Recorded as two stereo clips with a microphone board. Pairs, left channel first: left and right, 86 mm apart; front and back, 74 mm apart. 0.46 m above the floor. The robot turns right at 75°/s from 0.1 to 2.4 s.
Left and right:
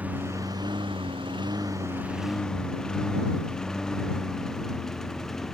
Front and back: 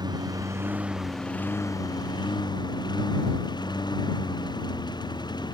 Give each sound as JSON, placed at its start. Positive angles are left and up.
{"t": 0.0, "sound": "a lawn mower", "azimuth_deg": -165}